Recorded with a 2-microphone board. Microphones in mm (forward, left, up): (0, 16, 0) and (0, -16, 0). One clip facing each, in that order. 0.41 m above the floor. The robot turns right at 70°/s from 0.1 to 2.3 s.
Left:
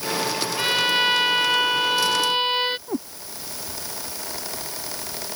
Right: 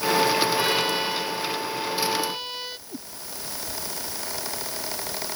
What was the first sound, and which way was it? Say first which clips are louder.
A violin: left 3 dB; 10° left.